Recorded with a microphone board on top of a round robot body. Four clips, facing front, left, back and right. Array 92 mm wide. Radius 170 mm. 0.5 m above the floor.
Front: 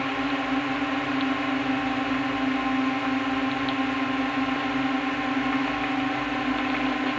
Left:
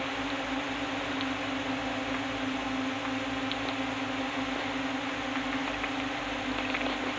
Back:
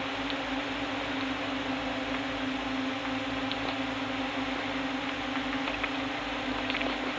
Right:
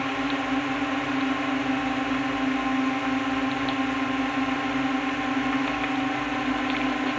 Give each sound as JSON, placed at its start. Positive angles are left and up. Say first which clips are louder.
{"t": 0.0, "sound": "a drone", "louder": "right 6 dB, front 7 dB", "azimuth_deg": -40}